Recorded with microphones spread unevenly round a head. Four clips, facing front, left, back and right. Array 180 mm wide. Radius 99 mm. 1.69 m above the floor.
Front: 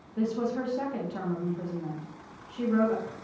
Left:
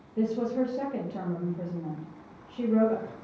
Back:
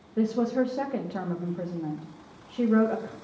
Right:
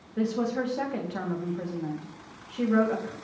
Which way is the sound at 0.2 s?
170° left.